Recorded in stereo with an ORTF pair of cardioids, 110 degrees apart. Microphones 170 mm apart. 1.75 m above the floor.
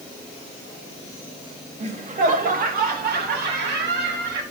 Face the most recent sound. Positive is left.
turn(degrees=-80)